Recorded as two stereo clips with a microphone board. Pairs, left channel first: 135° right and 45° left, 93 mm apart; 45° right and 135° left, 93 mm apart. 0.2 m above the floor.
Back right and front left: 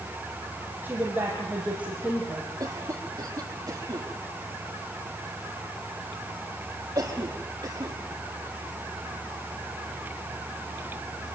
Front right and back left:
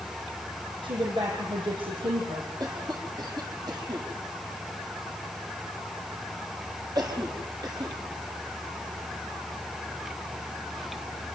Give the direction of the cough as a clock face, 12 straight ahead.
9 o'clock.